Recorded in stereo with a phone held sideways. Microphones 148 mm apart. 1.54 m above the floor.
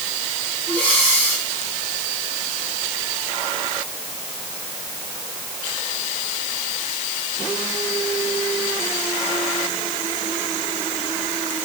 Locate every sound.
0.7 s breathing: 10° left (ahead or behind), 7 m